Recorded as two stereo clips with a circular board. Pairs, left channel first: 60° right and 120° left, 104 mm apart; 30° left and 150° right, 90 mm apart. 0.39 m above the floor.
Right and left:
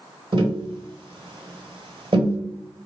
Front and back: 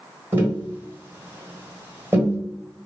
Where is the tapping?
145° left, 1.2 m.